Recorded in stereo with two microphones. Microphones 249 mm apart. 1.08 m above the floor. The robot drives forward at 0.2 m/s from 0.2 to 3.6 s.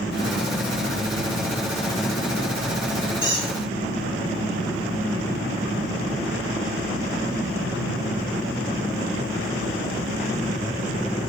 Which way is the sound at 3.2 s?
50° left (ahead or behind).